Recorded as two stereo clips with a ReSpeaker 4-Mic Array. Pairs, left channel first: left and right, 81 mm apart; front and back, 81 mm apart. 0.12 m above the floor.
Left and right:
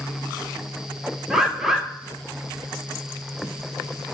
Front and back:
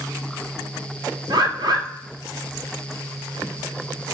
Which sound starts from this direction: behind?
A bird, at 1.3 s.